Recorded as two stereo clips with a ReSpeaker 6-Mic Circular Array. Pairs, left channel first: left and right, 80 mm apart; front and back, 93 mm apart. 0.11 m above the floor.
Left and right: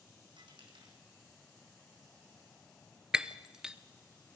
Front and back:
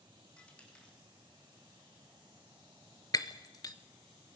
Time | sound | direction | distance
0.4 | a dropped coin | 80° right | 2.5 m
3.1 | breaking glass | 15° right | 0.8 m